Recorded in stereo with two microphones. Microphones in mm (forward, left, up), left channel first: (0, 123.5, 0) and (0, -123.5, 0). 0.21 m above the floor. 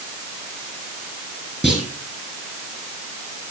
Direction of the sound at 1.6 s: Centre (ahead or behind).